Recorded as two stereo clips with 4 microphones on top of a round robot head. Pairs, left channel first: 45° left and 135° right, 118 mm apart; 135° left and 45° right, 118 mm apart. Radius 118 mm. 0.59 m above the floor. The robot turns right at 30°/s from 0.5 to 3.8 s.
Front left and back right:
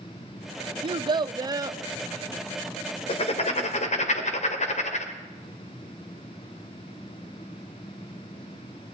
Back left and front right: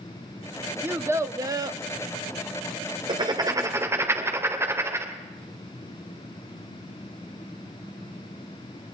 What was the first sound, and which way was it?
A child speaking, 110° right.